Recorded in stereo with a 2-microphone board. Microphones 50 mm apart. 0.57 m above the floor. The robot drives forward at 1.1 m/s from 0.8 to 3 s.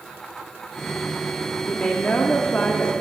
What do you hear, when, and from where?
1.6 s a woman speaking: 25° left (ahead or behind), 1.1 m; by 2.9 s 20° left (ahead or behind), 1.3 m